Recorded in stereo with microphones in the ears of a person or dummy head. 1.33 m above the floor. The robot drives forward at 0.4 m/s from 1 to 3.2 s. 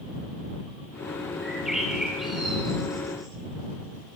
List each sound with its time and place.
1.4 s a bird: centre (ahead or behind), 5.5 m